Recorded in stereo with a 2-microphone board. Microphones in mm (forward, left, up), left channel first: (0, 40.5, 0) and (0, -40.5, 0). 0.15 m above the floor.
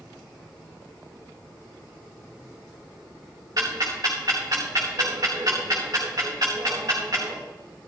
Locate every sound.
3.6 s ticking: 50° right (ahead or behind), 4 m